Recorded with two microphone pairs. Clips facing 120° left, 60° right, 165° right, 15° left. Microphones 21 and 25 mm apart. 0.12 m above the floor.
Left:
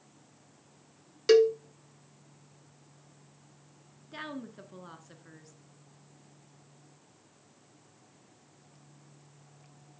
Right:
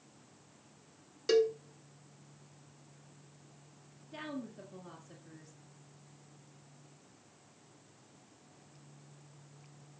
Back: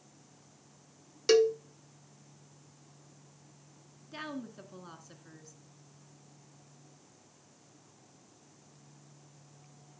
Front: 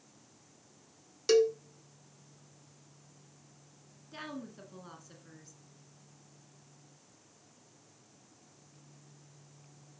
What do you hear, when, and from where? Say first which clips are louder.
1.3 s a cowbell: left 7 dB, back 1 dB; 140° left, 0.6 m
4.1 s a woman speaking: left 2 dB, back 2 dB; 115° left, 1.5 m